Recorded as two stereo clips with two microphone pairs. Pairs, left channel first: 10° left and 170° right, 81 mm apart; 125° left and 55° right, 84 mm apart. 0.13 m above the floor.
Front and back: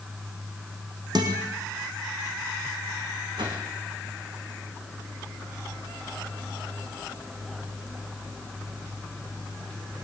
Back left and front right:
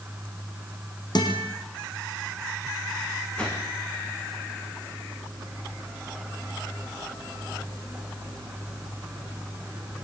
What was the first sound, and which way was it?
A guitar, 160° left.